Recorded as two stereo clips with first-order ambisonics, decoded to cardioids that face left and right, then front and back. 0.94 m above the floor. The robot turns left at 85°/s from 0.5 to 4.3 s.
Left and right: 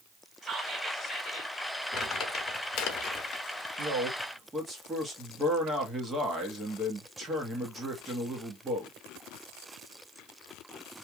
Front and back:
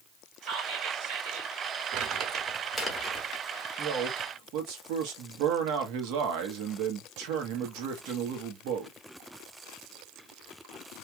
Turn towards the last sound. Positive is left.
turn(degrees=-165)